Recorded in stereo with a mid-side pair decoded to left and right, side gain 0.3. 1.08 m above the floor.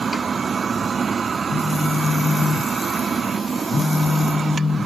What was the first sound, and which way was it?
A phone buzzing, 45° left.